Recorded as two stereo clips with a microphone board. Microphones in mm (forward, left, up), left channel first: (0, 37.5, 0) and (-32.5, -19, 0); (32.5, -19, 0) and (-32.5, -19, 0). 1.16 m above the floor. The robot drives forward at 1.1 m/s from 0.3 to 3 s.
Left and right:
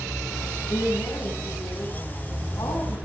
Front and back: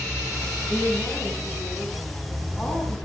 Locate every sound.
0.7 s a woman speaking: 75° left, 9.5 m; by 3.1 s 90° left, 9 m